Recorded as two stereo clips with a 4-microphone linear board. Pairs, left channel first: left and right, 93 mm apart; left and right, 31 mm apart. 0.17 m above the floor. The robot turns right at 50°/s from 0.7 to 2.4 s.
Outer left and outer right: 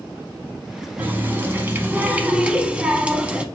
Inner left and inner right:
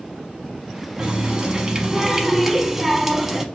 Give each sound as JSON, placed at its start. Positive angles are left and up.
{"t": 1.0, "sound": "a running tap", "side_deg": -20, "distance_m": 0.8}